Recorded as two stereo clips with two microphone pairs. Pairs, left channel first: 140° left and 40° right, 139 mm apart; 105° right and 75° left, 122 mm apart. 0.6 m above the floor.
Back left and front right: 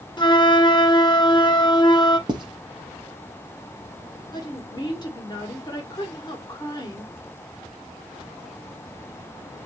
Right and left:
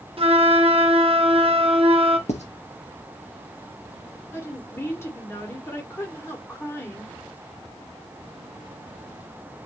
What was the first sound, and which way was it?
A flute, 95° left.